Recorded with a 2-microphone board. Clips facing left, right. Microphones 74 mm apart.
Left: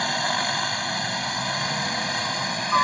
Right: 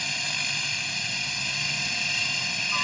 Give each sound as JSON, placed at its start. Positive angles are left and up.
{"t": 0.0, "sound": "a helicopter", "side_deg": 55}